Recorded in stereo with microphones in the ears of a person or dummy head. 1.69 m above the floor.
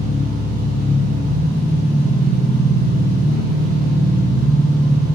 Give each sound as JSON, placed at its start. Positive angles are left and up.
{"t": 0.0, "sound": "an engine running", "side_deg": 60, "distance_m": 1.4}